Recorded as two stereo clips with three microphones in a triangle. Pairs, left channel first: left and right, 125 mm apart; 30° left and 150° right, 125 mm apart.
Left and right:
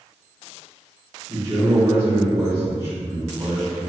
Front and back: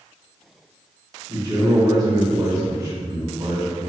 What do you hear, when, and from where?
1.3 s a man speaking: 125° right, 1.7 m